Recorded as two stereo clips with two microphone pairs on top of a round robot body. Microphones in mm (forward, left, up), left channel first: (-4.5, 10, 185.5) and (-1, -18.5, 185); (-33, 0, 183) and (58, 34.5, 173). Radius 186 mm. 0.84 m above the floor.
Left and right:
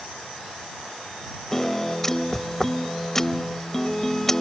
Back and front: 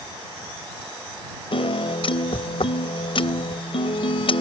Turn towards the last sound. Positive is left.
turn(degrees=170)